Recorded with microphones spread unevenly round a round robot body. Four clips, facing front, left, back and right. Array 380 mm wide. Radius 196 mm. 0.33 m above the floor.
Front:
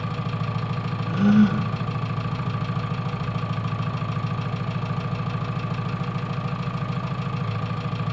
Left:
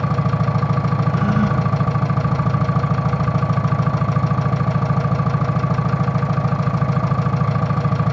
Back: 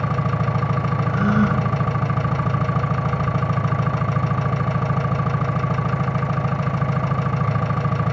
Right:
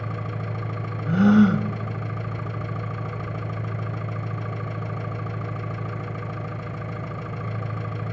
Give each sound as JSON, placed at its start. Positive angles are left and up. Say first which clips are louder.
{"t": 0.0, "sound": "an engine running", "louder": "left 12 dB, back 7 dB", "azimuth_deg": 115, "distance_m": 0.7}
{"t": 1.1, "sound": "a gasp", "louder": "right 6 dB, front 3 dB", "azimuth_deg": -80, "distance_m": 0.9}